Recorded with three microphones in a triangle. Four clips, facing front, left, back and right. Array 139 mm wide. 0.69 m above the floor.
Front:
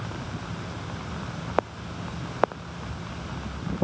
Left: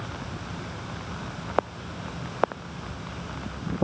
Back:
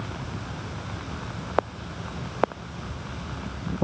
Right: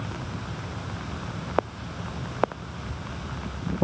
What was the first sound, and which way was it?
Only background noise.